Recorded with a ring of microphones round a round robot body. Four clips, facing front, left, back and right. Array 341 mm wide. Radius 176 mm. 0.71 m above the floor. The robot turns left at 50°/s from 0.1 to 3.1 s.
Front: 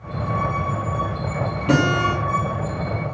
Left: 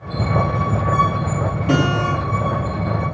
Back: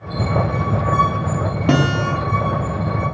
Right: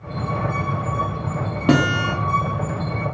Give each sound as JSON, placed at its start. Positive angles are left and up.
{"t": 1.7, "sound": "a guitar", "azimuth_deg": -130, "distance_m": 0.9}